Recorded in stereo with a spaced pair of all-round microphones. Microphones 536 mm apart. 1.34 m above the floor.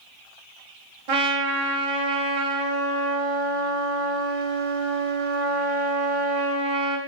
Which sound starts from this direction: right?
A trumpet, at 1.1 s.